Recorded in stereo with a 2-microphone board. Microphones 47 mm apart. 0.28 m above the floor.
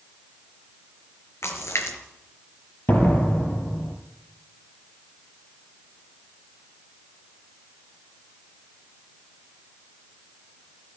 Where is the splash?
75° left (ahead or behind), 4 m.